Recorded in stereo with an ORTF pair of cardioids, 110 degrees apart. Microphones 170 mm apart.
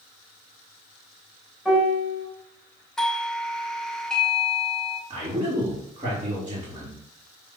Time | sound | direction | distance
1.6 | a piano | straight ahead | 3.5 m
3.0 | a doorbell | 5° left | 0.8 m
5.1 | a man speaking | 25° right | 3 m